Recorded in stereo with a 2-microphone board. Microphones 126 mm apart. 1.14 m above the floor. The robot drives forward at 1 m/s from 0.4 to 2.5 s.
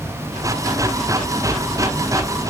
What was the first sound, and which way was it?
Only background noise.